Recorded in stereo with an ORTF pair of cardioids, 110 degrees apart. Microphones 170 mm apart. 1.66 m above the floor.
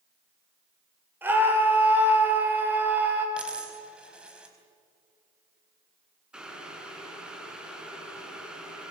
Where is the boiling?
5° right, 4.5 m.